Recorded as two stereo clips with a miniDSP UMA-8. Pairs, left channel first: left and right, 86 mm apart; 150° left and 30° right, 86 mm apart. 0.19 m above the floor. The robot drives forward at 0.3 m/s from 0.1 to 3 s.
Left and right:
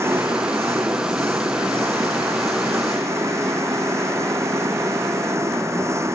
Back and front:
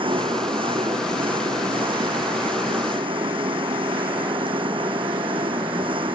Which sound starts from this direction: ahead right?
An engine running, at 0.0 s.